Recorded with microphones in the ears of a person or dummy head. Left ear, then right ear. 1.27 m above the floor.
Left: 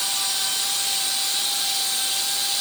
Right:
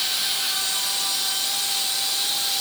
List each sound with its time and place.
Only background noise.